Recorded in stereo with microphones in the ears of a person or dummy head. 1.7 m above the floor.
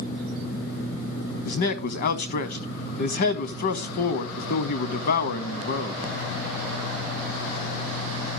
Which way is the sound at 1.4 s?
55° left (ahead or behind).